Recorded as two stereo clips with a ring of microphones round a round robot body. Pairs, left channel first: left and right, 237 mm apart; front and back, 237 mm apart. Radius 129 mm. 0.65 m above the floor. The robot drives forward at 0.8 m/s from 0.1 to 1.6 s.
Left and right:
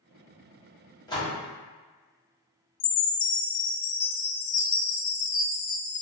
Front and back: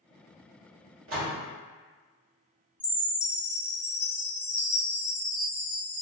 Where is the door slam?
160° left, 1.0 m; by 1.4 s 165° left, 1.3 m.